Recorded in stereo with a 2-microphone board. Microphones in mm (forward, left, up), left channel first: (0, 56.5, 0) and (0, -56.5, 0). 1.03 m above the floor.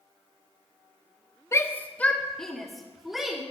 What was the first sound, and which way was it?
A shout, 25° left (ahead or behind).